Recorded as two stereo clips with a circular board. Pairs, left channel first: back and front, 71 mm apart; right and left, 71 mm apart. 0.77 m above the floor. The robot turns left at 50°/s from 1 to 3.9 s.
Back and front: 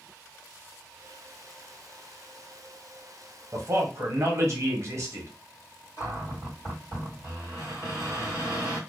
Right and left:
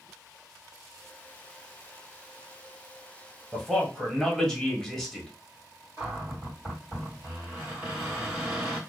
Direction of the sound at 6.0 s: 155° left.